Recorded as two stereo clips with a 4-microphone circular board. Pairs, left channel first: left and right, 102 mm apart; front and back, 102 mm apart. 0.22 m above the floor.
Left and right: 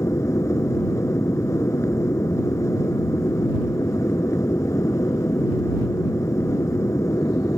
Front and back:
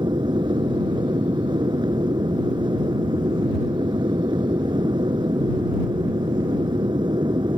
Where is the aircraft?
145° left.